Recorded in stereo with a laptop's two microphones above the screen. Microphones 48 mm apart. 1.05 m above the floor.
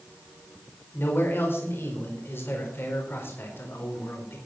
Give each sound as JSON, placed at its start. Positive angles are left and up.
{"t": 0.9, "sound": "a man speaking", "side_deg": 55, "distance_m": 4.5}